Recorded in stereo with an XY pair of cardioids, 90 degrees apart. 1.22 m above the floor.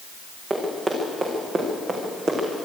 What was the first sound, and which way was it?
Running footsteps, 40° right.